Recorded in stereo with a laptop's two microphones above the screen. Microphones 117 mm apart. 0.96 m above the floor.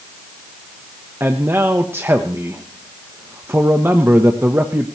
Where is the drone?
No drone in this recording.